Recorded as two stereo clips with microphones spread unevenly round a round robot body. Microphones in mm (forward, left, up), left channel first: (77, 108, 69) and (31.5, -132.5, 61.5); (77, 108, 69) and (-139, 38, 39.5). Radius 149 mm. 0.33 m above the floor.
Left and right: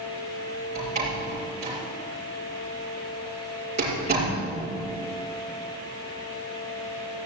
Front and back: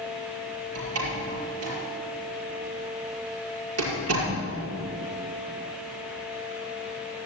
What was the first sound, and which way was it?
A door slam, 165° right.